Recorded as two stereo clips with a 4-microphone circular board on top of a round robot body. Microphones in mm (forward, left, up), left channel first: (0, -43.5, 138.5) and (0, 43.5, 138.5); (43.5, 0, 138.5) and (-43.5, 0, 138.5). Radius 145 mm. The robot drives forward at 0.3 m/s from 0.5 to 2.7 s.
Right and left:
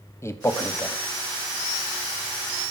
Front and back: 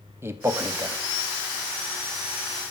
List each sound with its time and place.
0.2 s a man speaking: 130° right, 1.0 m; by 1.0 s 140° right, 1.0 m